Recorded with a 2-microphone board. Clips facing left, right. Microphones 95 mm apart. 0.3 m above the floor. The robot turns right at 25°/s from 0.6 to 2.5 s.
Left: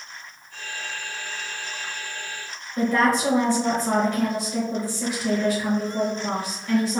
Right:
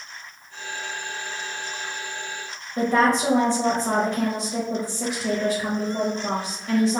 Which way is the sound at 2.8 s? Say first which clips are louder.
Right 1 dB; 30° right (ahead or behind).